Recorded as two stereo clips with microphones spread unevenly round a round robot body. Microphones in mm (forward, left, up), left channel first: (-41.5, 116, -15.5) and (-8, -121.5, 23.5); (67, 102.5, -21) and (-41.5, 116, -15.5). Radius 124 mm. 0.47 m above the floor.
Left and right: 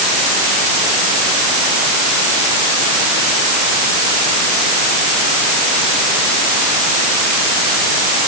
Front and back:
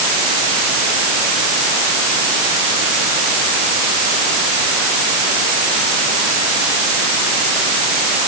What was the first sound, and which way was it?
Only background noise.